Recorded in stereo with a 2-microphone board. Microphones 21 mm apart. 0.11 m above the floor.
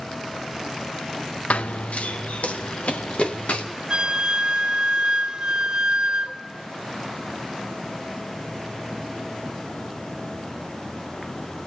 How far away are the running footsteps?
About 0.7 m.